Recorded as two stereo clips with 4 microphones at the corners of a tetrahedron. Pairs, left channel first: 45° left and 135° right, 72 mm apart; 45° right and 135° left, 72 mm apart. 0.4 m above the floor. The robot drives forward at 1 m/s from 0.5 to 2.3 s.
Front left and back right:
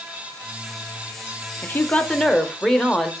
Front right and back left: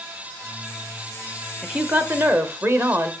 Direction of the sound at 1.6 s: 65° left.